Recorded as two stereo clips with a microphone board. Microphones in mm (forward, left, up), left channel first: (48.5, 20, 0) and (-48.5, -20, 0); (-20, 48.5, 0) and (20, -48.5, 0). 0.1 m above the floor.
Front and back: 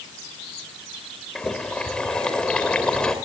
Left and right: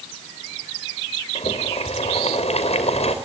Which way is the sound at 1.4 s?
105° left.